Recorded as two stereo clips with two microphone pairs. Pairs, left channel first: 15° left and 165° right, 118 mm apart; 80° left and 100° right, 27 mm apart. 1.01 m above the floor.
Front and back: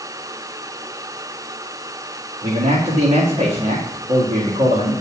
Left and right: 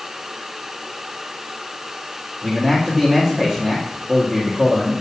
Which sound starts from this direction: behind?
A man speaking, at 2.4 s.